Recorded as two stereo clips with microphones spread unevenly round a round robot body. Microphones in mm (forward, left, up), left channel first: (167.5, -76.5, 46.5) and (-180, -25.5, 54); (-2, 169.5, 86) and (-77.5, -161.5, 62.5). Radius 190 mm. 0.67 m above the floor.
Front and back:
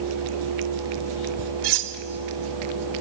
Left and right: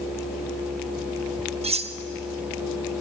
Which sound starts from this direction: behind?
Cutlery clinking, at 1.6 s.